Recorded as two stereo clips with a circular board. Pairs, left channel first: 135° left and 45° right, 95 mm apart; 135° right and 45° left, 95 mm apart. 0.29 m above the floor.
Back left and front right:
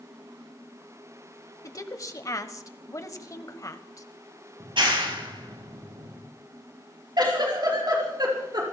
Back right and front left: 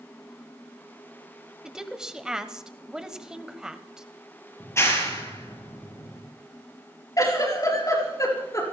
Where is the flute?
No flute in this recording.